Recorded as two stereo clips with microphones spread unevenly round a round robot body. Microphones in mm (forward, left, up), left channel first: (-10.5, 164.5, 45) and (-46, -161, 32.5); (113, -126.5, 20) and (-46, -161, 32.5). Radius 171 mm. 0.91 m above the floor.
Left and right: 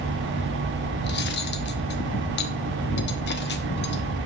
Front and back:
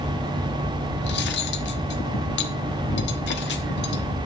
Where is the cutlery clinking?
20° left, 0.9 m.